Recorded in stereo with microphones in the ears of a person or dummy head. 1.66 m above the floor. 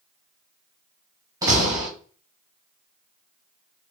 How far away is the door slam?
About 3 m.